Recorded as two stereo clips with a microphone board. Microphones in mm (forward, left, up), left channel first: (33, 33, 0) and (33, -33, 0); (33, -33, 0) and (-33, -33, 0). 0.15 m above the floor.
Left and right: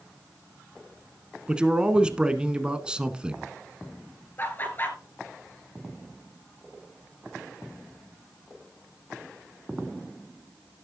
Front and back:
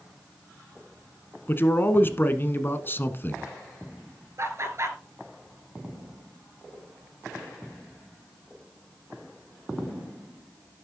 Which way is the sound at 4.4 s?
145° left.